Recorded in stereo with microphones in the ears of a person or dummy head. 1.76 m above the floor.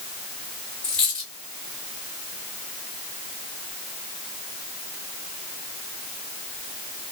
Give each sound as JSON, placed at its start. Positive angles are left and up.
{"t": 0.8, "sound": "a dropped coin", "side_deg": 5, "distance_m": 1.8}